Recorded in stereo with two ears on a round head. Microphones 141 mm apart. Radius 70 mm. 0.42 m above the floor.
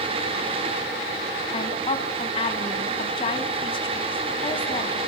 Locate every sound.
1.5 s a woman speaking: 35° left (ahead or behind), 3 m